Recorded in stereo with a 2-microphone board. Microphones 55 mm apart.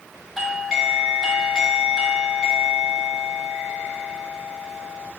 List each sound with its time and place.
0.4 s a doorbell: 5° left (ahead or behind), 1.5 m